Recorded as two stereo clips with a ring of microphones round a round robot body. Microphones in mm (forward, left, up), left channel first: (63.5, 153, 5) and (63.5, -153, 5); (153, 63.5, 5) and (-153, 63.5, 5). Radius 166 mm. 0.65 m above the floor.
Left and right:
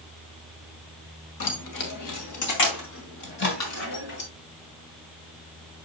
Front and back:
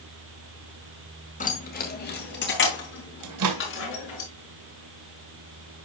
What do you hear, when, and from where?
1.4 s keys jangling: 65° left, 2 m; by 4.2 s 50° left, 5 m
3.2 s a microwave: 150° left, 1.8 m